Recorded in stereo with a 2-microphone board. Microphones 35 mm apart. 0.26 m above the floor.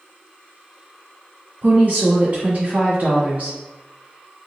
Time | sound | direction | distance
1.6 | a woman speaking | 50° right (ahead or behind) | 1.8 m